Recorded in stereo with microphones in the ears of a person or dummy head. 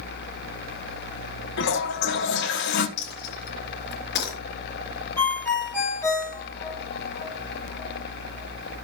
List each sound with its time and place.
1.6 s a toilet flushing: 60° left (ahead or behind), 1.4 m
3.0 s a dropped coin: 65° left (ahead or behind), 4 m
5.2 s a ringtone: 15° left (ahead or behind), 6 m